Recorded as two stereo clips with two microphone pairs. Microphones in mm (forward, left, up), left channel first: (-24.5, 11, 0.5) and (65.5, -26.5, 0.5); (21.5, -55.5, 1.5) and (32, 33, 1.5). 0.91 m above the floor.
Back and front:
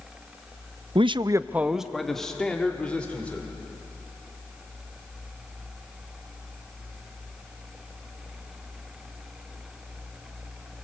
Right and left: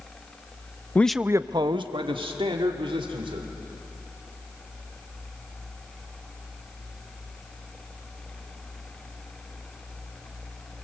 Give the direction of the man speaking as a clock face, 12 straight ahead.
1 o'clock.